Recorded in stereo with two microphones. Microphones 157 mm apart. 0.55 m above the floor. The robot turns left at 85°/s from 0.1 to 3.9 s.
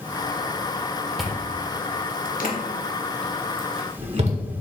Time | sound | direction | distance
1.2 | chewing | centre (ahead or behind) | 1.3 m